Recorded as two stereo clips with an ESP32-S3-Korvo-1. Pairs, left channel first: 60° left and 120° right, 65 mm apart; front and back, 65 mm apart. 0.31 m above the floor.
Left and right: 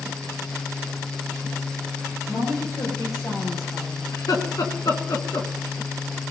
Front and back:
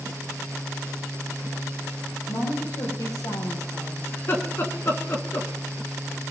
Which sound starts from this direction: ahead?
A woman speaking, at 2.3 s.